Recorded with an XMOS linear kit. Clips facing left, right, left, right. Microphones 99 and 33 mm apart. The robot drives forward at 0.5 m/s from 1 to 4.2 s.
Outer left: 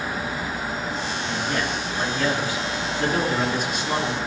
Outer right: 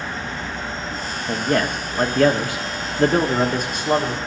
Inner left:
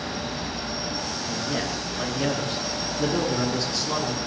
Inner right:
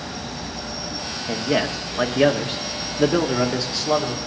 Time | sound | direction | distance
1.3 | a man speaking | 55° right (ahead or behind) | 1.1 m